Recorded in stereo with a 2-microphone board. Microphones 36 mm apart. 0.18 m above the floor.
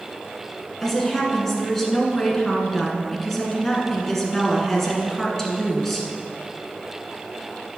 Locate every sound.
0.8 s a woman speaking: 10° left (ahead or behind), 1.8 m